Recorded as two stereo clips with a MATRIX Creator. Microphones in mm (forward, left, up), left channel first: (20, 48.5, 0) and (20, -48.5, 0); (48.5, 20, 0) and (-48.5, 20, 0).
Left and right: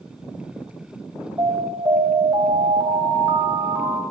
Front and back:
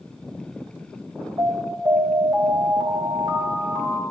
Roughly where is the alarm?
Behind right.